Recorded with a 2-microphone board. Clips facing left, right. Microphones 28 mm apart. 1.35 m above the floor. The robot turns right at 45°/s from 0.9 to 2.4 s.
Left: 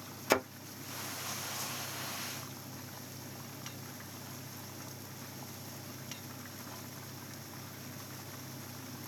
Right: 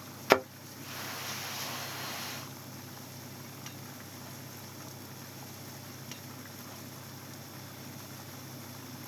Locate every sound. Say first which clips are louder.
0.3 s a thud: right 5 dB; 30° right (ahead or behind), 0.6 m